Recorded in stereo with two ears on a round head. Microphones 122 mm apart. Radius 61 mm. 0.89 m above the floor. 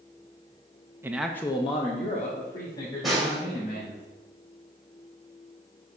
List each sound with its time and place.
1.0 s a man speaking: 20° right (ahead or behind), 0.6 m; by 4.0 s 65° left (ahead or behind), 3 m
3.0 s a snare drum: centre (ahead or behind), 1.9 m